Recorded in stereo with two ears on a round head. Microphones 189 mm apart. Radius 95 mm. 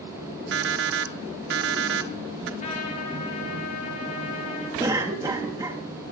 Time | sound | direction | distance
0.5 | an alarm clock | 55° right (ahead or behind) | 1.0 m
2.6 | a trumpet | 35° left (ahead or behind) | 3 m
4.8 | a cough | 15° right (ahead or behind) | 1.4 m